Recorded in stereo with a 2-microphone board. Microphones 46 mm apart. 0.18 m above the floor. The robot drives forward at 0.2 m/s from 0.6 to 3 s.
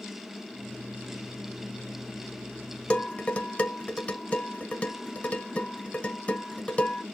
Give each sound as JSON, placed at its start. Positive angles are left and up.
{"t": 2.9, "sound": "dishes clattering", "side_deg": 30, "distance_m": 0.8}